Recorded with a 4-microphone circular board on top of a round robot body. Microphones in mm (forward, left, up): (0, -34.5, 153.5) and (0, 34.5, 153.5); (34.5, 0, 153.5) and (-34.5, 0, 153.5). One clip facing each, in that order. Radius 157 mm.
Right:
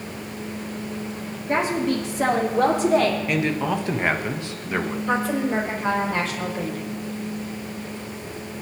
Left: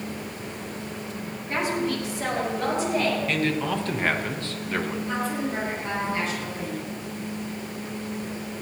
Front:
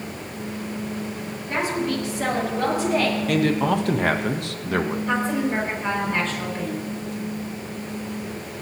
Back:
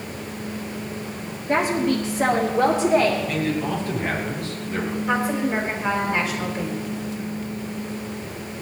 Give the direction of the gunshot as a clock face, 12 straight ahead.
I don't hear a gunshot.